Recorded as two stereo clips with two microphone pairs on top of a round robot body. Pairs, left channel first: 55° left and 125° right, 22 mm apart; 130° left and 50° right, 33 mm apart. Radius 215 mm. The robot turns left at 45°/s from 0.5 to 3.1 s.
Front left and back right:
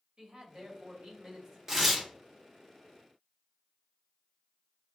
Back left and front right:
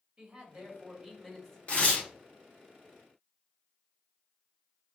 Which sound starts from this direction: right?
A man speaking, at 0.2 s.